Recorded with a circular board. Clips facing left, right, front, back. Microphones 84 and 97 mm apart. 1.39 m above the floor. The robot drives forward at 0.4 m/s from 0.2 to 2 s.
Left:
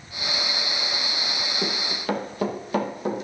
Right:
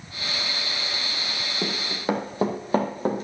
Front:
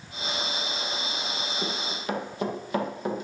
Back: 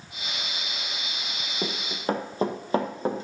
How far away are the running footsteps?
About 1.7 m.